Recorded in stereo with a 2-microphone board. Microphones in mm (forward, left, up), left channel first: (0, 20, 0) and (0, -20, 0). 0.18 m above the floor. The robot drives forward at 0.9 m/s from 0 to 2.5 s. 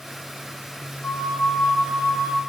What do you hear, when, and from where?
1.0 s a flute: 70° left (ahead or behind), 3 m; by 2.4 s 75° left (ahead or behind), 3 m